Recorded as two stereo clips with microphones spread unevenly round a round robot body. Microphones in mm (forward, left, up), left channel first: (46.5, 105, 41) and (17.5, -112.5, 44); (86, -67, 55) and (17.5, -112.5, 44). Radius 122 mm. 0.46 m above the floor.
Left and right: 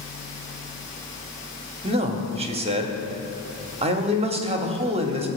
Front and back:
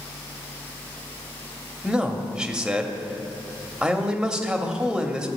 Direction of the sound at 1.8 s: 95° right.